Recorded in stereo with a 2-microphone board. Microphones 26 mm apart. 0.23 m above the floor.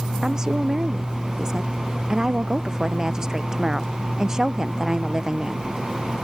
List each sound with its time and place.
0.2 s a woman speaking: 25° right (ahead or behind)